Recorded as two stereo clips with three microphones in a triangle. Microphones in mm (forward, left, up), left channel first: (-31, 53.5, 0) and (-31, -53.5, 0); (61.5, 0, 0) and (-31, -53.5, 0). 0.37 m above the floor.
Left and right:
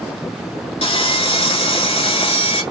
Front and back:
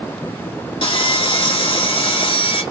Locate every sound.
0.8 s sawing: 60° left, 1.1 m